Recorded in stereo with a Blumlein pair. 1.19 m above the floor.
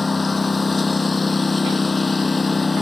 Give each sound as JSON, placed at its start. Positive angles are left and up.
{"t": 0.0, "sound": "a lawn mower", "azimuth_deg": 10}